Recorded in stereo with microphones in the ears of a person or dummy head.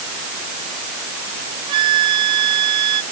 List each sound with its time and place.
1.7 s a flute: 30° right (ahead or behind)